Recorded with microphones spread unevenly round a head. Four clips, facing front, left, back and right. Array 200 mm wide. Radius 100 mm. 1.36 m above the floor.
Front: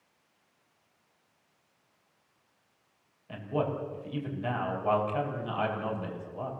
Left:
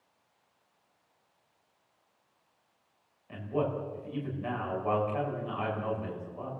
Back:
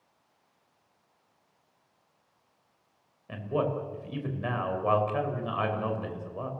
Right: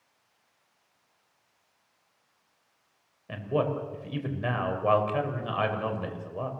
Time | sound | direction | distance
3.3 | a man speaking | 110° right | 5.5 m